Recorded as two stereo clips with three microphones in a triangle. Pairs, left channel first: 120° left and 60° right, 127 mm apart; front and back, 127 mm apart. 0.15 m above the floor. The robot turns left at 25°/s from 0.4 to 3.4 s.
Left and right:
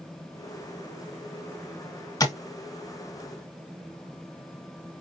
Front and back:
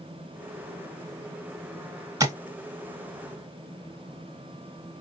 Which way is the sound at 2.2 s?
150° left.